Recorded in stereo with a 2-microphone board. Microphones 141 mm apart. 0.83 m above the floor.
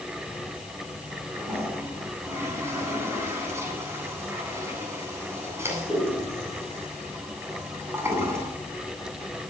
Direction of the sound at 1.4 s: 20° right (ahead or behind).